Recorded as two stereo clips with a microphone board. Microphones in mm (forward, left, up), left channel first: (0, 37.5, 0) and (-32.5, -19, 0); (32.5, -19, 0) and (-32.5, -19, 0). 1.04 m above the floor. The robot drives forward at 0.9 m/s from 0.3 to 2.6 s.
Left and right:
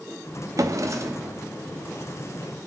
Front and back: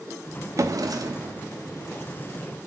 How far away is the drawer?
About 0.6 m.